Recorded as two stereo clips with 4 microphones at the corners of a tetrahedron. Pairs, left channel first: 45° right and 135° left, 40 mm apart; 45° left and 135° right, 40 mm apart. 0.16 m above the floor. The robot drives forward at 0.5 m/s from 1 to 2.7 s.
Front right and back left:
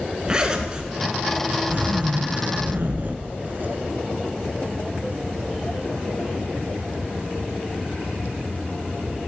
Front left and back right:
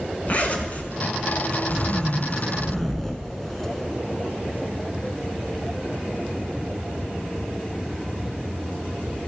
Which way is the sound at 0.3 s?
75° left.